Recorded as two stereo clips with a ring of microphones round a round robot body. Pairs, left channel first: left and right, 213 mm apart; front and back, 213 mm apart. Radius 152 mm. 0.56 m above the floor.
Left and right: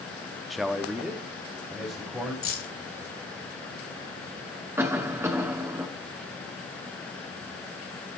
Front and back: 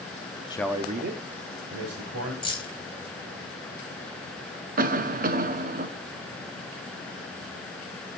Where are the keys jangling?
70° left, 2 m.